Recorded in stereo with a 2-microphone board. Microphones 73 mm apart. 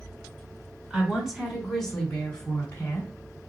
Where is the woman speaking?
15° right (ahead or behind), 3 m; by 3.1 s 30° left (ahead or behind), 3 m.